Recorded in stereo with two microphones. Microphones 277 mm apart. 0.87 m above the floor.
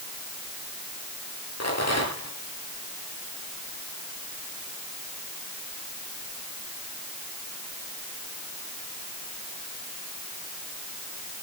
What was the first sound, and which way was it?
A rattle, 70° left (ahead or behind).